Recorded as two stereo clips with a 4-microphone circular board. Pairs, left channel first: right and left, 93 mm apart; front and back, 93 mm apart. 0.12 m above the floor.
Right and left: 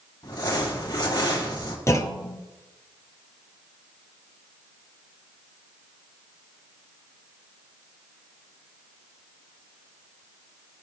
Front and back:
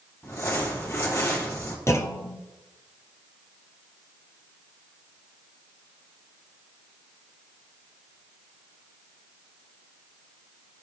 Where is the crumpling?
55° right, 3.5 m.